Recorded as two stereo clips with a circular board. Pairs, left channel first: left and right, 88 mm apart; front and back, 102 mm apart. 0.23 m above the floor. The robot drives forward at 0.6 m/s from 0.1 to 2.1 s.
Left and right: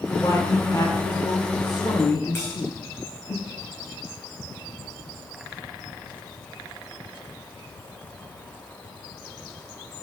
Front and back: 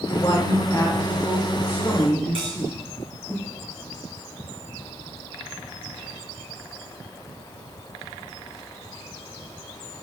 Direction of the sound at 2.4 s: 155° left.